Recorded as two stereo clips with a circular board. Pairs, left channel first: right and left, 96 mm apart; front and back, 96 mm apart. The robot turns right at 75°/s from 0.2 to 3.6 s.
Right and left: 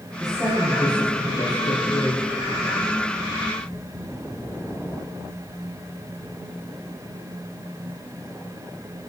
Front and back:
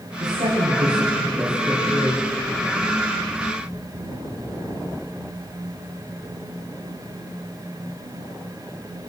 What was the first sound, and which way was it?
A woman speaking, 170° left.